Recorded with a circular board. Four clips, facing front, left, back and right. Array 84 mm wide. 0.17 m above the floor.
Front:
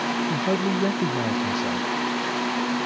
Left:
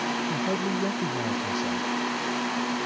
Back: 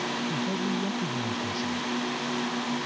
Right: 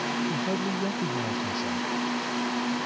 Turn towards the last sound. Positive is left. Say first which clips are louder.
# left 1 dB, front 6 dB
turn(degrees=10)